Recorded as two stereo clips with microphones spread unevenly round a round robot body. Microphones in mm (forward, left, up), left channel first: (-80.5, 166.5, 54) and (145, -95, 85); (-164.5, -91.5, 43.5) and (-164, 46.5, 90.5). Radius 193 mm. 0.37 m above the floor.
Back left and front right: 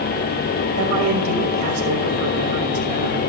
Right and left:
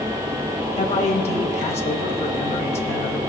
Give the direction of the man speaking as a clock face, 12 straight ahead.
3 o'clock.